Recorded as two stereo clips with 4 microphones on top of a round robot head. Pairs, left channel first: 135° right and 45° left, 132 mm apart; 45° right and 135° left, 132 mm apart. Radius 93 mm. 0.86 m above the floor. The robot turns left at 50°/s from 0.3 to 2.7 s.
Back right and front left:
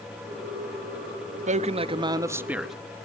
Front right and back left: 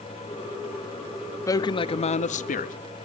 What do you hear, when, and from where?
1.5 s a man speaking: 20° left, 1.0 m; by 2.7 s 45° right, 1.0 m